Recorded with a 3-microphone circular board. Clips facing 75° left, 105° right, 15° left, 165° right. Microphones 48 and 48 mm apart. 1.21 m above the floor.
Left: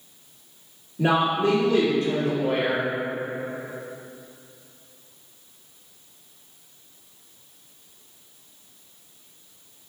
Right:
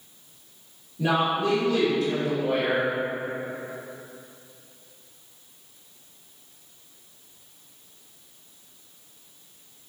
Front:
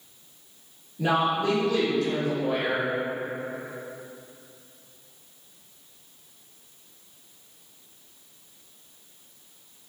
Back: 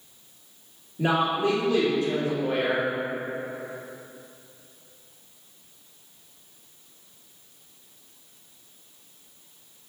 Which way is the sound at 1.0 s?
130° left.